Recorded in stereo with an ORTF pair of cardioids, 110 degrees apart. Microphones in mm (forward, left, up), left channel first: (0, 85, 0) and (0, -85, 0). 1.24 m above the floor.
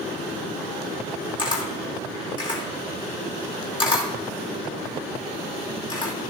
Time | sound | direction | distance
1.4 | a camera shutter | 30° left | 2.5 m